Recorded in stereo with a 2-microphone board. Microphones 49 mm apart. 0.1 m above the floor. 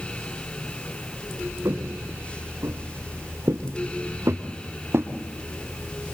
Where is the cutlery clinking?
No cutlery clinking in this recording.